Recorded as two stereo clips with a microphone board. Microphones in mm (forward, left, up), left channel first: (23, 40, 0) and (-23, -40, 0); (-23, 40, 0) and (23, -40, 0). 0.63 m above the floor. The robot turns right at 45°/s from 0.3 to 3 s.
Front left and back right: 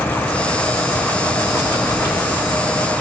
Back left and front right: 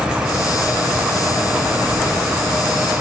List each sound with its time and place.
1.6 s a phone buzzing: 145° left, 2 m; by 2.5 s 175° right, 2 m